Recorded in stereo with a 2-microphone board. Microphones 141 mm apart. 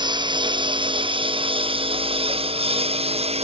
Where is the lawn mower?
35° right (ahead or behind); by 3.5 s 45° right (ahead or behind).